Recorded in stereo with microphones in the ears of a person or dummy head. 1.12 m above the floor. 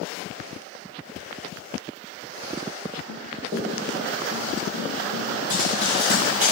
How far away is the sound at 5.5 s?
About 3.5 m.